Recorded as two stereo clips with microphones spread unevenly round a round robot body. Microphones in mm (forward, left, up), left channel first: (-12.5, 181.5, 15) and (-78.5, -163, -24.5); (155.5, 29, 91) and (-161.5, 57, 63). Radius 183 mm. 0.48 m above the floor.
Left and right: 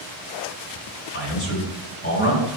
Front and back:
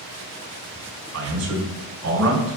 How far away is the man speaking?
About 5 m.